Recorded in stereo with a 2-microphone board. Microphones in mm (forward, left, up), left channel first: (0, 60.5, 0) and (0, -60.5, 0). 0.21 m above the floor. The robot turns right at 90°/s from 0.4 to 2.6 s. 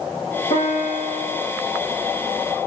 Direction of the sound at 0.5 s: 90° left.